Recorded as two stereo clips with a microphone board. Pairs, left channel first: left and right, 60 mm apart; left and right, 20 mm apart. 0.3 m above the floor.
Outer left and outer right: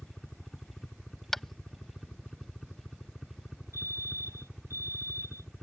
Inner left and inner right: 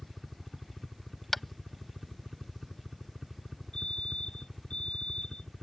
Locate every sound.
0.0 s a helicopter: 5° left (ahead or behind); by 5.6 s centre (ahead or behind)
1.3 s tapping: 5° left (ahead or behind)
3.7 s a fire alarm: 55° left (ahead or behind)